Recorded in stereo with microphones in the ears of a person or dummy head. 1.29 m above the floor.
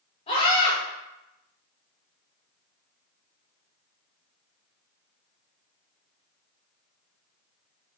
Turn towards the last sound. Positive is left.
turn(degrees=30)  # may be behind; listen again after turning